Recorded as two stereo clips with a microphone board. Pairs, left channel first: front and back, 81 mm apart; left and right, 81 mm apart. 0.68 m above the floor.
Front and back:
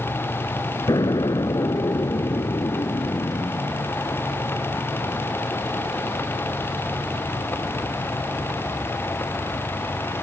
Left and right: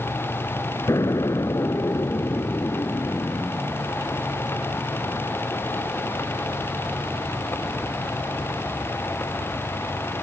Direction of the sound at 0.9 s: 40° left.